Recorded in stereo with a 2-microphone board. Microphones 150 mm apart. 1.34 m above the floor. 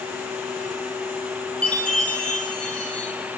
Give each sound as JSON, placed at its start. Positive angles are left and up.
{"t": 1.6, "sound": "a chime", "side_deg": 10, "distance_m": 2.0}